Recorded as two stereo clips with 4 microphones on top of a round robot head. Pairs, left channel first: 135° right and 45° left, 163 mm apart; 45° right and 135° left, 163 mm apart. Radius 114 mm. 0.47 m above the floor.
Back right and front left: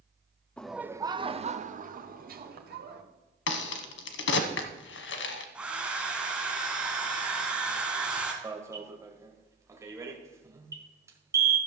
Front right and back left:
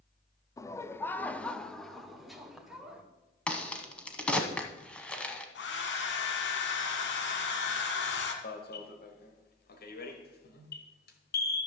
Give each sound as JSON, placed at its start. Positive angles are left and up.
{"t": 0.6, "sound": "laughter", "azimuth_deg": -65, "distance_m": 0.7}
{"t": 3.5, "sound": "a crack", "azimuth_deg": -130, "distance_m": 1.0}
{"t": 5.5, "sound": "a hair dryer", "azimuth_deg": -40, "distance_m": 1.6}
{"t": 8.4, "sound": "an alarm", "azimuth_deg": -25, "distance_m": 1.7}